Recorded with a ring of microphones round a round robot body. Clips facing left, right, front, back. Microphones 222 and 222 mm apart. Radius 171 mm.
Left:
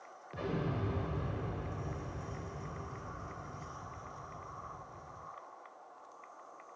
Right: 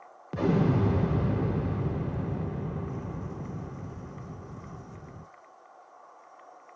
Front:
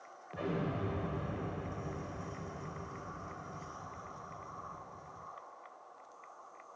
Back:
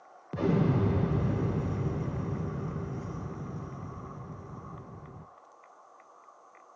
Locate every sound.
0.3 s an explosion: 130° right, 0.5 m